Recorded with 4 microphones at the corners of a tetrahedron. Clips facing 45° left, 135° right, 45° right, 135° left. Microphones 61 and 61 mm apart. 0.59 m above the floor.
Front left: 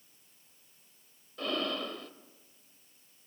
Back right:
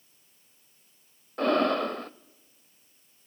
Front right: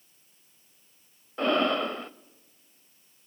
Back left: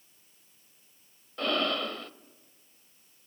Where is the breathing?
110° right, 0.5 m.